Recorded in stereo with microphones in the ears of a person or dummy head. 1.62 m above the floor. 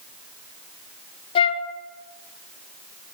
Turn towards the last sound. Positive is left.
turn(degrees=25)  # may be behind; listen again after turning